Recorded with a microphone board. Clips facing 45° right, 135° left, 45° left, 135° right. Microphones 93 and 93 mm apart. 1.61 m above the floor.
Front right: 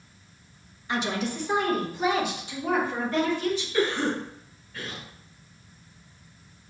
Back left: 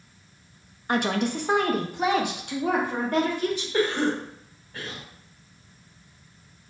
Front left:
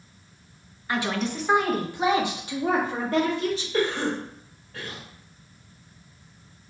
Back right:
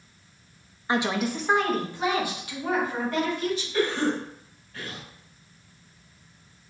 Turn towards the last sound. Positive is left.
turn(degrees=105)